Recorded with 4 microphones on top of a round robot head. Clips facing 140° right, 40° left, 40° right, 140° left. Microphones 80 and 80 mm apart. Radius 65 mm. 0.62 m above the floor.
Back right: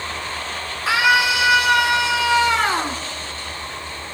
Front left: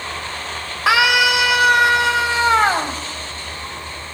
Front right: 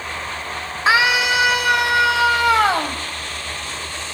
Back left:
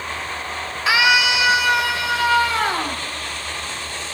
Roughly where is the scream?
Ahead.